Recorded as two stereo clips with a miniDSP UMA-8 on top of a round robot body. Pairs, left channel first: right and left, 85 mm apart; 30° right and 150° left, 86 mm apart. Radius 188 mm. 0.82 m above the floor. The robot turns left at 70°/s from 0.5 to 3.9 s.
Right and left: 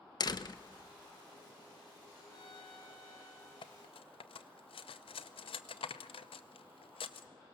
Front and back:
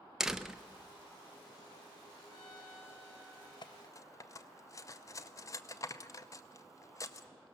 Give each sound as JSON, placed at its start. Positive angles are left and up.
{"t": 0.2, "sound": "a door slam", "azimuth_deg": -125, "distance_m": 0.8}
{"t": 2.3, "sound": "a violin", "azimuth_deg": -50, "distance_m": 3.0}
{"t": 3.6, "sound": "cutlery clinking", "azimuth_deg": -65, "distance_m": 0.6}